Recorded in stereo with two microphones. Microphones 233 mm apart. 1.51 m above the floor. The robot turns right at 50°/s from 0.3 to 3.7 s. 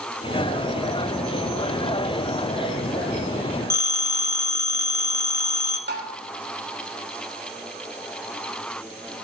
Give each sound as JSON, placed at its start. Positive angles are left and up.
{"t": 3.7, "sound": "a phone ringing", "side_deg": -10, "distance_m": 1.7}
{"t": 5.9, "sound": "tapping", "side_deg": -50, "distance_m": 3.0}